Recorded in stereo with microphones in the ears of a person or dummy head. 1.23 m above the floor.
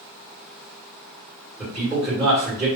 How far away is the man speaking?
About 1.8 m.